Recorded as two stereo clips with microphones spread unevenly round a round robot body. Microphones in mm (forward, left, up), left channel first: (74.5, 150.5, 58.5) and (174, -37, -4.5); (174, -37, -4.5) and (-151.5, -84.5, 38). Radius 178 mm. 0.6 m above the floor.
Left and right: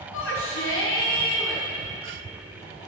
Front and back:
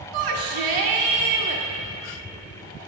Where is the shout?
165° left, 1.5 m.